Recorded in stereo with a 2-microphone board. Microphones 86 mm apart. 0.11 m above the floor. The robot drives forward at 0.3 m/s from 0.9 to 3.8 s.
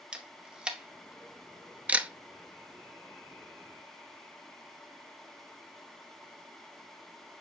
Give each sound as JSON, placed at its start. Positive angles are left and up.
{"t": 0.1, "sound": "a camera shutter", "side_deg": -10, "distance_m": 0.8}